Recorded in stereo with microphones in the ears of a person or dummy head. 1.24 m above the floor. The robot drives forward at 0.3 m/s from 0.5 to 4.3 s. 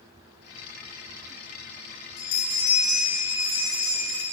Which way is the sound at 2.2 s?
85° left.